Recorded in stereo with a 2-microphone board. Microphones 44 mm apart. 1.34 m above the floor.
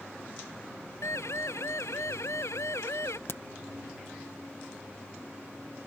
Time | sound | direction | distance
1.0 | a siren | 85° left | ?
3.3 | a crack | 60° left (ahead or behind) | ?